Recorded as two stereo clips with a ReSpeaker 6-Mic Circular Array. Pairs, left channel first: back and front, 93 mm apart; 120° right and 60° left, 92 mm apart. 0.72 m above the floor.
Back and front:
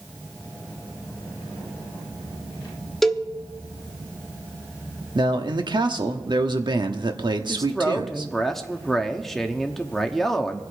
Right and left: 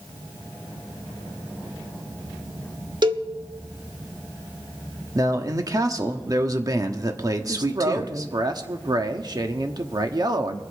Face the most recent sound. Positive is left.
turn(degrees=95)